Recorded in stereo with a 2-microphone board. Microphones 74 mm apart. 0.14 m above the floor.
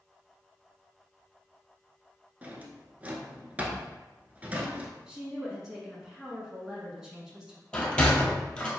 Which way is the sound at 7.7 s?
15° left (ahead or behind).